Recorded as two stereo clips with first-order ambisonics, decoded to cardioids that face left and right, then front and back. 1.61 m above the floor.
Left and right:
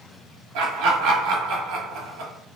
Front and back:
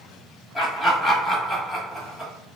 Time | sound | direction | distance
0.6 | laughter | 85° right | 1.1 m